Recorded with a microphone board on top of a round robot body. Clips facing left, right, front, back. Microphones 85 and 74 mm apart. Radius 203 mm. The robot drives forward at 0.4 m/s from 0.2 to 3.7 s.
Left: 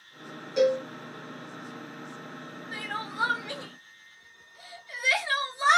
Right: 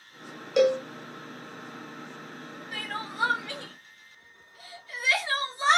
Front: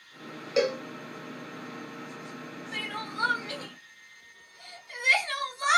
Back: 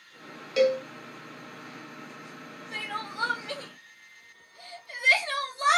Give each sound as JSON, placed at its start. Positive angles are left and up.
{"t": 0.6, "sound": "a cowbell", "azimuth_deg": -65, "distance_m": 0.6}
{"t": 2.7, "sound": "crying", "azimuth_deg": 160, "distance_m": 0.8}